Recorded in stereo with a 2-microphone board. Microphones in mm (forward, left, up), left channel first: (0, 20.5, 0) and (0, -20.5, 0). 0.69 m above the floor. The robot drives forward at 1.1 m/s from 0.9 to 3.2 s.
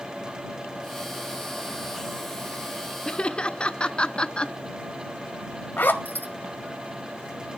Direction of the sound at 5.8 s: 50° left (ahead or behind).